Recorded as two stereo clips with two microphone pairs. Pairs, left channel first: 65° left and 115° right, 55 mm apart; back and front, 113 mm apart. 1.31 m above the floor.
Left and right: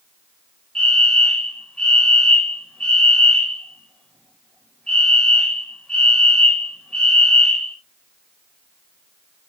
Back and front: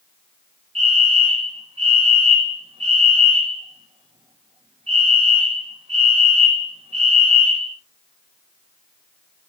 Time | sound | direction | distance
0.8 | a fire alarm | 10° right | 5 m